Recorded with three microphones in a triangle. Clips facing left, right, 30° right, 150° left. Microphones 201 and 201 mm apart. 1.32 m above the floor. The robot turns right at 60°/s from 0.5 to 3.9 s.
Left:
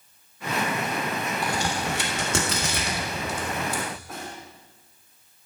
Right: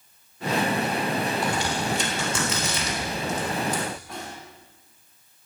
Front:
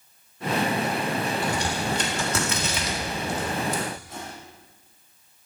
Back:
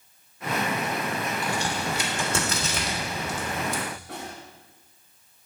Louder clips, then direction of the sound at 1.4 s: Right 1 dB, front 2 dB; 35° left.